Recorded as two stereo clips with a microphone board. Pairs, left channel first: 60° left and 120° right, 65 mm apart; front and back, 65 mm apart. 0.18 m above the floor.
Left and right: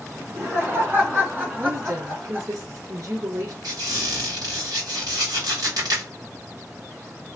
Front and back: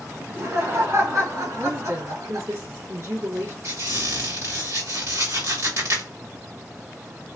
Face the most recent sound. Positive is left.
turn(degrees=-140)